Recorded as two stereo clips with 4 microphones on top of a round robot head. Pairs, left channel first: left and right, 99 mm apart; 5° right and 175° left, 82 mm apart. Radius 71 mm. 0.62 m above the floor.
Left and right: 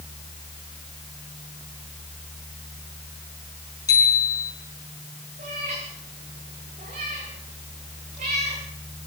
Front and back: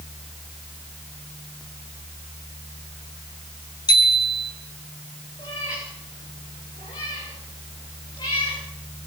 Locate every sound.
3.9 s a bicycle bell: 25° left, 5 m
5.4 s a cat meowing: 65° right, 7.5 m